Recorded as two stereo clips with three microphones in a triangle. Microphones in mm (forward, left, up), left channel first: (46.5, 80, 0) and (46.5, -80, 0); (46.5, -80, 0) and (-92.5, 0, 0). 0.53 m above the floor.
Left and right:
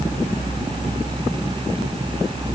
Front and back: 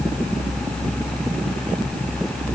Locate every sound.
Only background noise.